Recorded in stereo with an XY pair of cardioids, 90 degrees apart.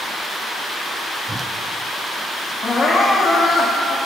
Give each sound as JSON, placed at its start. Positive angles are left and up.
{"t": 1.3, "sound": "a whoosh", "azimuth_deg": -20, "distance_m": 1.0}
{"t": 2.6, "sound": "crying", "azimuth_deg": 55, "distance_m": 2.5}